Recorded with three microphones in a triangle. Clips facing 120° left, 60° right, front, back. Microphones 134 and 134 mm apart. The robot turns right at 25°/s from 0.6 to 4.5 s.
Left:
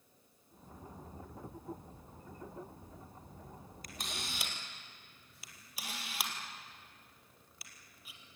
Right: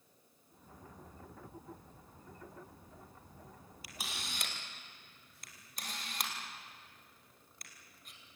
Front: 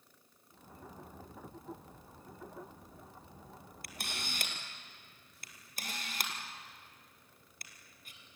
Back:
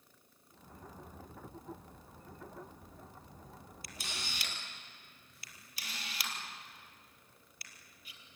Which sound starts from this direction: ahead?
A camera shutter, at 3.8 s.